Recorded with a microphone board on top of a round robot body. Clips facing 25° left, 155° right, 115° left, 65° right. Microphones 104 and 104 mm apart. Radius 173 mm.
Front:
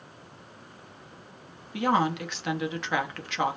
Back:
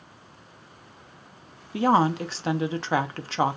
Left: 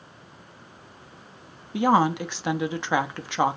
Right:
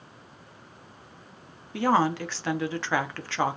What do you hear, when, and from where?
1.7 s a woman speaking: 175° left, 0.9 m